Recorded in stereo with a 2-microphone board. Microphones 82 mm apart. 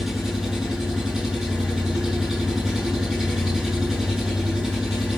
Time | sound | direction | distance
0.0 | an engine running | 5° right (ahead or behind) | 8 m